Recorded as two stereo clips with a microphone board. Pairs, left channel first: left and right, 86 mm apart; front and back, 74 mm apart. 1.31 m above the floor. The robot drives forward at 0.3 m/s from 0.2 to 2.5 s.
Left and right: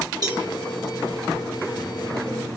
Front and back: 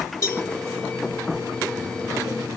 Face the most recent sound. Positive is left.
turn(degrees=-65)